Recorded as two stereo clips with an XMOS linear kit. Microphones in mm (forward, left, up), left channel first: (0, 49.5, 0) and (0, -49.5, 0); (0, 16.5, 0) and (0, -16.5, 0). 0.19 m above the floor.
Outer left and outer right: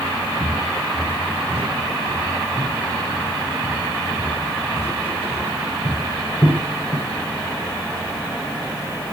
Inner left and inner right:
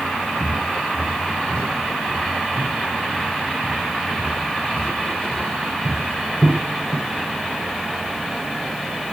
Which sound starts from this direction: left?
Footsteps, at 0.4 s.